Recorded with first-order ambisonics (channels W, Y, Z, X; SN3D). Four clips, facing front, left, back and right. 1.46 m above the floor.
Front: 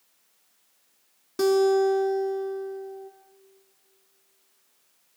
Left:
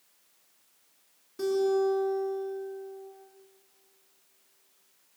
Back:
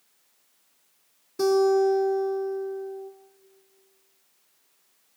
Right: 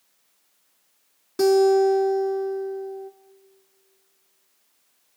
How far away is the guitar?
About 2 m.